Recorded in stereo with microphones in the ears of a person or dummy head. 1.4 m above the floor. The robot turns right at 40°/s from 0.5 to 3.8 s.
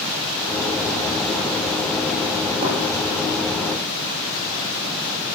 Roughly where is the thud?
Right.